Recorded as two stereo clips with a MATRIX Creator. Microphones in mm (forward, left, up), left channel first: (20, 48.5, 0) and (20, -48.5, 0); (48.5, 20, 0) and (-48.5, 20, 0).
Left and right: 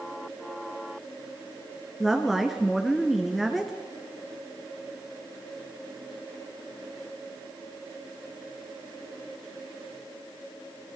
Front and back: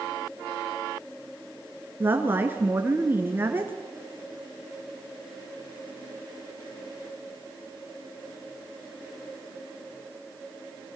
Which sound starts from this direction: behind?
A woman speaking, at 2.0 s.